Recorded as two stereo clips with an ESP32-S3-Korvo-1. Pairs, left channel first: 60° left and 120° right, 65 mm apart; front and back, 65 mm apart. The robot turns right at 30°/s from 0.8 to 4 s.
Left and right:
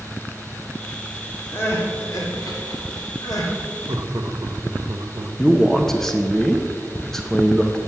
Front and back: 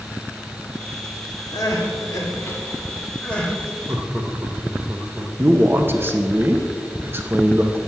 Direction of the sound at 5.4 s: 140° left.